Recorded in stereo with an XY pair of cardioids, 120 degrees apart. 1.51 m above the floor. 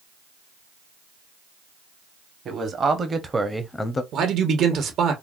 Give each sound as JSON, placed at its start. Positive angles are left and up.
{"t": 2.5, "sound": "a man speaking", "azimuth_deg": -45, "distance_m": 1.2}
{"t": 4.1, "sound": "a man speaking", "azimuth_deg": -60, "distance_m": 1.0}